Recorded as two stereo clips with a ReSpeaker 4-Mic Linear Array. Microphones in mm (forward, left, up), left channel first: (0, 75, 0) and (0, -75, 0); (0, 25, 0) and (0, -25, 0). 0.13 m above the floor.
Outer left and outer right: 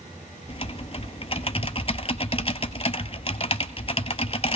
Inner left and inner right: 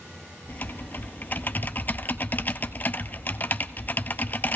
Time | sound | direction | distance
0.5 | typing on a keyboard | 40° left (ahead or behind) | 0.6 m